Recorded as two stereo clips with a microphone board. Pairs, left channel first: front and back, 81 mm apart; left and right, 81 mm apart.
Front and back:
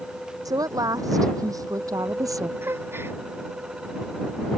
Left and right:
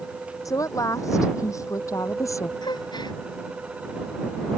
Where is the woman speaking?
140° left; by 2.5 s 135° left.